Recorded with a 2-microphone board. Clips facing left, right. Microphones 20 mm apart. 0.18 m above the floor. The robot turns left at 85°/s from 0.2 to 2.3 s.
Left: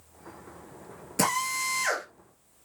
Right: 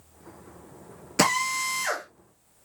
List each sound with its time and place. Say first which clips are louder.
1.2 s a drill: right 4 dB; 140° right, 2.5 m; by 2.0 s 145° left, 2.5 m